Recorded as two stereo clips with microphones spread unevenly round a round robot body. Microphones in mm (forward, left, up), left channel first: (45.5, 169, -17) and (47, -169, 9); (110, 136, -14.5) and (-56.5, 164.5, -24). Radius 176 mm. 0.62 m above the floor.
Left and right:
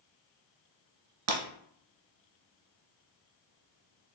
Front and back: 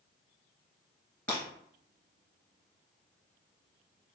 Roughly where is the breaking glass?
Right.